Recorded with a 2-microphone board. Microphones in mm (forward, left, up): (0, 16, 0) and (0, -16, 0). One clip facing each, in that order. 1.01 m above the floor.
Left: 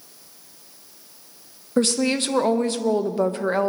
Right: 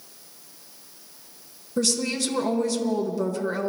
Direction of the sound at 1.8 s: 45° left (ahead or behind).